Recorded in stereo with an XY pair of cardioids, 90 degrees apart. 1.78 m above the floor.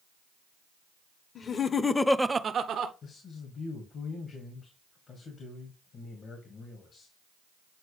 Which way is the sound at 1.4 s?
55° left.